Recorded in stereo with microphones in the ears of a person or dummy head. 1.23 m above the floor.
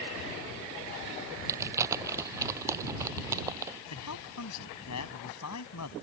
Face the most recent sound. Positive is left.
turn(degrees=85)